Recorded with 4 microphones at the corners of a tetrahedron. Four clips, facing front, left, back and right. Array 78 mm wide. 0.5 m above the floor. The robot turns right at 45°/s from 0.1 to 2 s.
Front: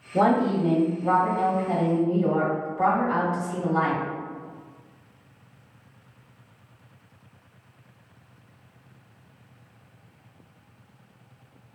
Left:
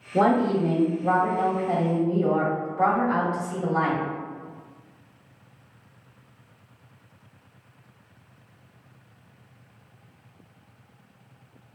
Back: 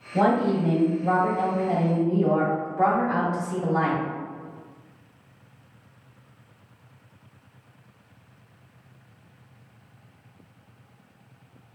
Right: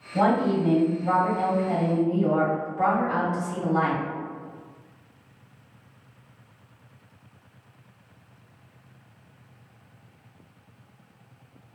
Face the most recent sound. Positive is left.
turn(degrees=155)